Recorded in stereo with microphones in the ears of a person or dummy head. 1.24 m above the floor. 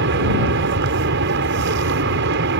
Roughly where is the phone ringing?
No phone ringing in this recording.